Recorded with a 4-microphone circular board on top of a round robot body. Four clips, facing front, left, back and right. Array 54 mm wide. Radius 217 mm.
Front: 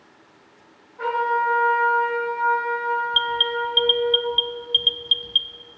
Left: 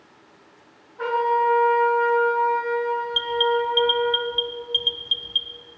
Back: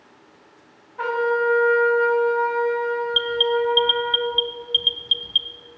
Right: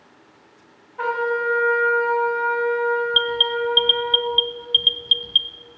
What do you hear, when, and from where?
1.0 s a trumpet: 130° right, 3.5 m
3.1 s an alarm: 85° right, 0.7 m